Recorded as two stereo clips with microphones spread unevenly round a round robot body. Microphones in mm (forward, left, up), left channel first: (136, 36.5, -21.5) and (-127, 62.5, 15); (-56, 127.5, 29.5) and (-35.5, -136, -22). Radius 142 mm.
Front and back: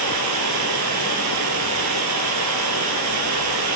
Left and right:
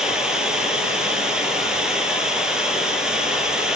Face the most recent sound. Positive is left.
turn(degrees=180)